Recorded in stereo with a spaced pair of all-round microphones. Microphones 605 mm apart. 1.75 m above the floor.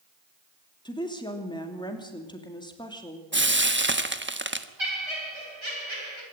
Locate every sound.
0.8 s a woman speaking: 5° left (ahead or behind), 3 m
3.3 s frying: 20° right (ahead or behind), 1.2 m
4.8 s laughter: 50° right (ahead or behind), 4.5 m